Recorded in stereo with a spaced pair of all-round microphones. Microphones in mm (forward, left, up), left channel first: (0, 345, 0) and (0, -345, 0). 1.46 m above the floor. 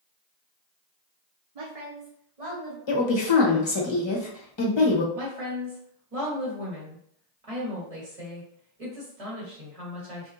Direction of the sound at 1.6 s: 60° right (ahead or behind).